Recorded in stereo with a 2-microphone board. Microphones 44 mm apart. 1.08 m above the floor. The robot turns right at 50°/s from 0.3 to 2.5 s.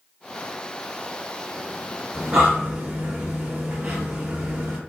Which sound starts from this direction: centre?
Breathing, at 2.1 s.